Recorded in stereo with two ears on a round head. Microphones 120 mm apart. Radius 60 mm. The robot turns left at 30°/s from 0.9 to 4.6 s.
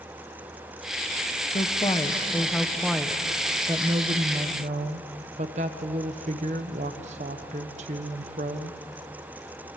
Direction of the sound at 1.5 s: 40° left.